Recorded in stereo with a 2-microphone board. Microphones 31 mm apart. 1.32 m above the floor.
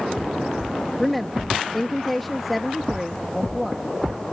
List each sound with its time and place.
1.0 s a woman speaking: 5° left (ahead or behind)